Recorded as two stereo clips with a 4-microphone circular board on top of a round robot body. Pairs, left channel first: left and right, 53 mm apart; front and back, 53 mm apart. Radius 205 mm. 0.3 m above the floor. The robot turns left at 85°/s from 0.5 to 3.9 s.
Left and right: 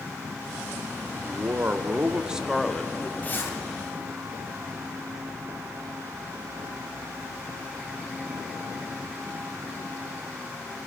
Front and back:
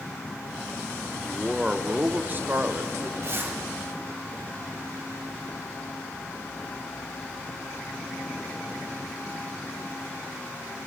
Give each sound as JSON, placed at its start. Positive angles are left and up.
{"t": 1.2, "sound": "a man speaking", "azimuth_deg": -70, "distance_m": 1.7}
{"t": 3.2, "sound": "a zipper", "azimuth_deg": 150, "distance_m": 3.0}